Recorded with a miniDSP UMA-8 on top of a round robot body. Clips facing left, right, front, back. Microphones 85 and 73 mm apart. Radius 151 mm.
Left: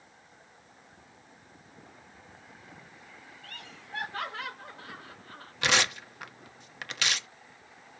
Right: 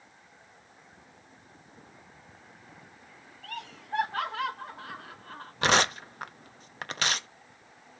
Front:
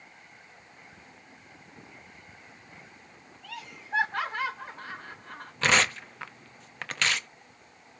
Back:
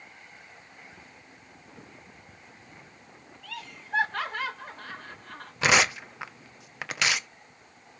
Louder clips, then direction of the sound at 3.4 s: Right 10 dB, even; 75° right.